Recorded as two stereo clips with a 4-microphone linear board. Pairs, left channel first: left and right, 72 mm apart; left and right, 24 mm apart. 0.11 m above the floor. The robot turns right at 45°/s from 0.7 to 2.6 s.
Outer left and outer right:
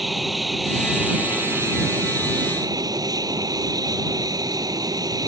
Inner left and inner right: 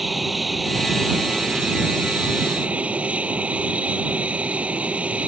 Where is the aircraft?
Straight behind; by 5.3 s 95° right.